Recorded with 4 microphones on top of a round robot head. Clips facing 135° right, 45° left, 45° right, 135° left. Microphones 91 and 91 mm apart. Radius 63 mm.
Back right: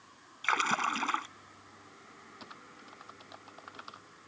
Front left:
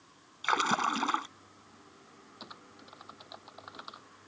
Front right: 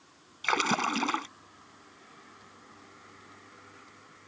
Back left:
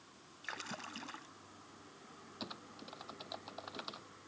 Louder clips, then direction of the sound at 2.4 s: Front left 2 dB, back left 4 dB; 125° left.